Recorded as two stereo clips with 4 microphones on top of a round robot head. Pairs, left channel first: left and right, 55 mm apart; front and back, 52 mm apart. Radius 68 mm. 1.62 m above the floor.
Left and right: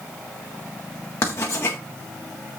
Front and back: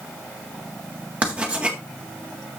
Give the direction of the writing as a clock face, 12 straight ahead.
8 o'clock.